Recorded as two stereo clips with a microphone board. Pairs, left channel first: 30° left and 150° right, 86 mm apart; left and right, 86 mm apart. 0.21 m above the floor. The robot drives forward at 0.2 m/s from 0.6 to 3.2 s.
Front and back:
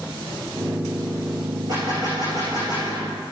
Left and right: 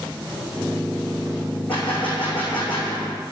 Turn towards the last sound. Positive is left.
turn(degrees=165)